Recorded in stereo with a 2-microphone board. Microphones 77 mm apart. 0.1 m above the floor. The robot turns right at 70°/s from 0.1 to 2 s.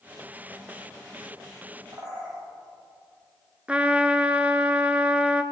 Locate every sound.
1.9 s a bird: 55° right (ahead or behind), 5.5 m; by 2.4 s 50° right (ahead or behind), 5.5 m
3.7 s a trumpet: 15° right (ahead or behind), 0.7 m